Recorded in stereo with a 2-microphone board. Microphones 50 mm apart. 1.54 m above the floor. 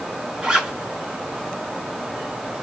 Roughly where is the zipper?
Centre.